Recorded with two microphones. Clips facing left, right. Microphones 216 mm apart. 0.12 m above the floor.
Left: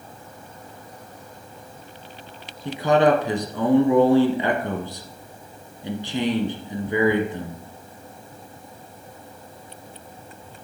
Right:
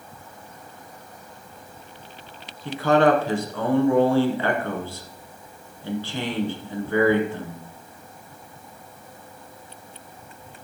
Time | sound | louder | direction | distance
2.6 | a man speaking | even | 20° left (ahead or behind) | 1.1 m